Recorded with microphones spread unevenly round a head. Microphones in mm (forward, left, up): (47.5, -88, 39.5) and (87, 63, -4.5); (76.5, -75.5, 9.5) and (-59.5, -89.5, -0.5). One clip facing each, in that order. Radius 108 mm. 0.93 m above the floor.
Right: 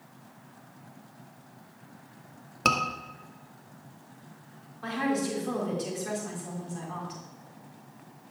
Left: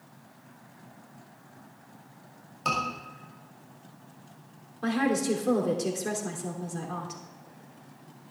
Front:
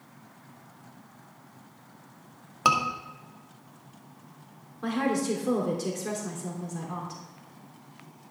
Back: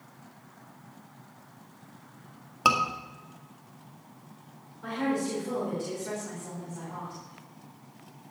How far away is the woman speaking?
About 3 m.